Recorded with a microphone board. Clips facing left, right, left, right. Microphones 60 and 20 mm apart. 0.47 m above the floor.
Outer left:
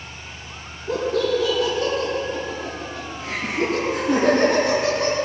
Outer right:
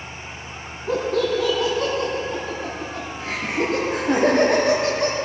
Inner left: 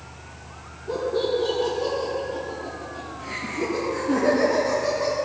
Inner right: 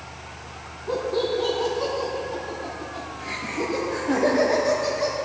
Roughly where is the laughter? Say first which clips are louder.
Even, even; right.